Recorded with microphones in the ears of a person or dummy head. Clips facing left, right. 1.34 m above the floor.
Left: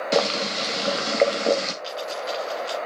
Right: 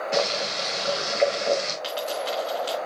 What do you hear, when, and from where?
0.1 s boiling: 50° left (ahead or behind), 1.4 m
1.8 s a dropped coin: 40° right (ahead or behind), 4.5 m